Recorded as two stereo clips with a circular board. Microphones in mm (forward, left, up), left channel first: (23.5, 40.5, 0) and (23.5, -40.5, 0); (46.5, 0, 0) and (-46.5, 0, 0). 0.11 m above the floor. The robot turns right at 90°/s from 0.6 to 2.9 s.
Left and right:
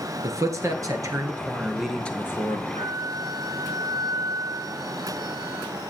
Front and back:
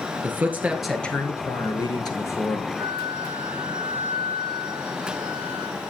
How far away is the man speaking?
About 1.6 m.